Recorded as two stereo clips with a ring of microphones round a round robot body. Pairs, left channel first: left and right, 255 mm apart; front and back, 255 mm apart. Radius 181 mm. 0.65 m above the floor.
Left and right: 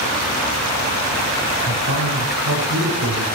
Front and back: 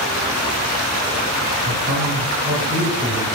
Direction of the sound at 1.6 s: 120° right.